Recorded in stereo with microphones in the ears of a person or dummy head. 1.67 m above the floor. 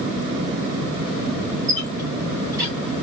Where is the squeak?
15° right (ahead or behind), 1.6 m.